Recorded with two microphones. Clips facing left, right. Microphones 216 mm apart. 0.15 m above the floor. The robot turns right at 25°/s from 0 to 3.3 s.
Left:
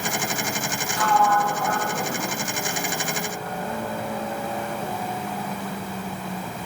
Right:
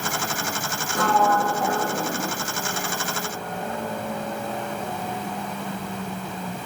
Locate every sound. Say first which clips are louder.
0.9 s a sliding door: right 1 dB; 55° right, 3 m; by 2.3 s 20° right, 3 m